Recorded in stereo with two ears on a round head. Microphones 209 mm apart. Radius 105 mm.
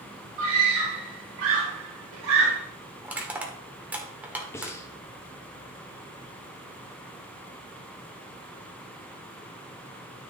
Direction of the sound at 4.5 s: 10° left (ahead or behind).